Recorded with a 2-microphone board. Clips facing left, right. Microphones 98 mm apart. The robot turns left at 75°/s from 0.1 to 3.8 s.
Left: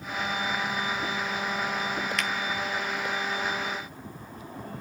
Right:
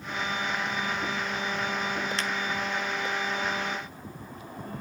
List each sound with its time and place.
2.2 s a finger snap: 30° right (ahead or behind), 0.6 m; by 2.3 s 35° right (ahead or behind), 0.6 m